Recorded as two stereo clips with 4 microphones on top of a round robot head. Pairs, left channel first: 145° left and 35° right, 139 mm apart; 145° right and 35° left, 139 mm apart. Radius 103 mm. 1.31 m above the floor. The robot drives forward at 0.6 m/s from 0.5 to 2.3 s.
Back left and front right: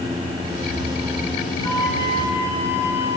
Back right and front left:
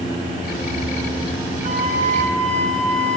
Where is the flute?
75° left, 2.5 m; by 3.2 s 85° left, 2.5 m.